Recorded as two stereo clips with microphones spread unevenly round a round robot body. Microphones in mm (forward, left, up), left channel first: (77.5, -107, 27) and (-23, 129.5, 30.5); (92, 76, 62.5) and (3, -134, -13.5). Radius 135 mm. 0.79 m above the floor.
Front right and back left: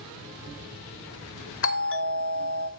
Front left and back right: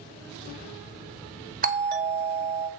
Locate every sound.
1.6 s a doorbell: 90° right, 2.5 m